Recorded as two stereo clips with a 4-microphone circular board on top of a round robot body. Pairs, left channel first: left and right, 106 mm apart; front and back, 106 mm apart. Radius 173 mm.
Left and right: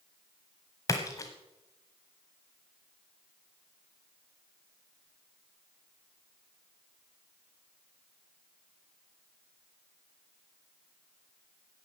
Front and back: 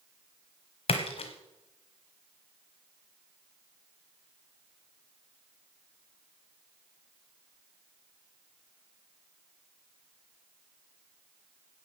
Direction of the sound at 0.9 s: 30° left.